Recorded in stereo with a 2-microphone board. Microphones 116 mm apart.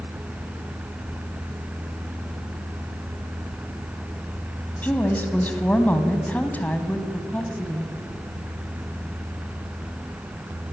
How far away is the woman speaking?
About 1.8 m.